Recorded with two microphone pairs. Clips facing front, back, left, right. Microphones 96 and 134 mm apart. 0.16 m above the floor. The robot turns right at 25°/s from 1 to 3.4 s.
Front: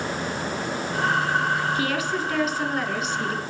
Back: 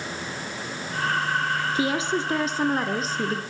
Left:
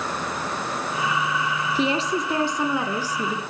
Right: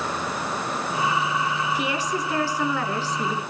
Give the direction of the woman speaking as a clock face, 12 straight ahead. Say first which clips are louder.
Back 1 dB, left 3 dB; 8 o'clock.